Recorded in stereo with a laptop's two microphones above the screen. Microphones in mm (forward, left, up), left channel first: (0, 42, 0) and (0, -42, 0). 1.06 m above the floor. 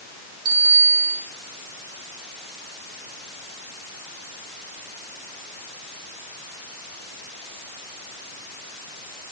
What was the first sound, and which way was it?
A bicycle bell, 65° right (ahead or behind).